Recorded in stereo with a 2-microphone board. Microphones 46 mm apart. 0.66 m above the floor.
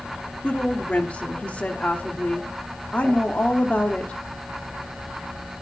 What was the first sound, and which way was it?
A woman speaking, 30° left (ahead or behind).